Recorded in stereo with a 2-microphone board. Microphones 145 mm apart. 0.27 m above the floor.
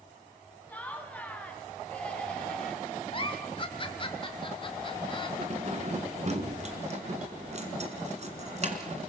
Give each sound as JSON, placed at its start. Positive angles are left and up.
{"t": 0.7, "sound": "laughter", "side_deg": 10, "distance_m": 3.0}
{"t": 3.1, "sound": "a giggle", "side_deg": 35, "distance_m": 1.8}
{"t": 5.4, "sound": "keys jangling", "side_deg": -50, "distance_m": 2.0}